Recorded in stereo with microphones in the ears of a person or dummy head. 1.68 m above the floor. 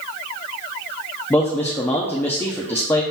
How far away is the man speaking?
About 0.6 m.